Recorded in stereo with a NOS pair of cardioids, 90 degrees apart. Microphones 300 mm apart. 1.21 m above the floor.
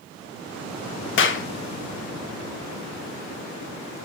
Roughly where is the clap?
Ahead left.